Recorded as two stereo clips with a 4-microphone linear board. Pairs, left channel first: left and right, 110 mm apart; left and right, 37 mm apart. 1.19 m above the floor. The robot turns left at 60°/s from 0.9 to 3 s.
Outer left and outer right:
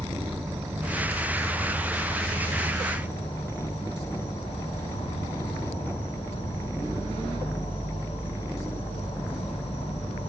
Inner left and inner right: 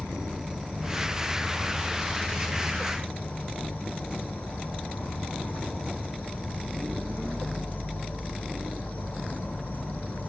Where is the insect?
155° right, 1.7 m; by 10.3 s 80° left, 1.7 m.